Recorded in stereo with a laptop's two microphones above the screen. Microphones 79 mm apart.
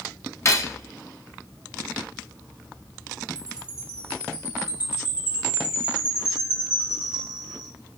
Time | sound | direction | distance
0.5 | cutlery clinking | 35° left (ahead or behind) | 0.9 m
3.4 | a chime | 15° right (ahead or behind) | 1.3 m